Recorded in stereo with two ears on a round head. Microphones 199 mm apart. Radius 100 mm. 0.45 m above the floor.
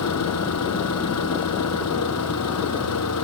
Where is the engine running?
90° left.